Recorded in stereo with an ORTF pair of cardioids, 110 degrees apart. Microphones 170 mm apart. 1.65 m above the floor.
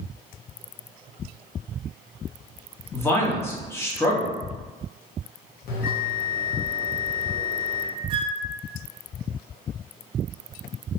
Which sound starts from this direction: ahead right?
A flute, at 8.1 s.